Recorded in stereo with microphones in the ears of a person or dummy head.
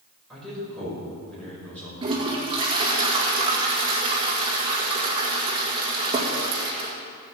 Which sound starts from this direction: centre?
A man speaking, at 0.3 s.